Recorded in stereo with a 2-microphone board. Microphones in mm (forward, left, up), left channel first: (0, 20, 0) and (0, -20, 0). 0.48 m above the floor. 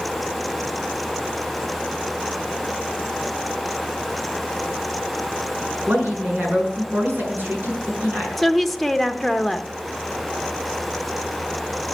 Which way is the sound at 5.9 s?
55° right (ahead or behind).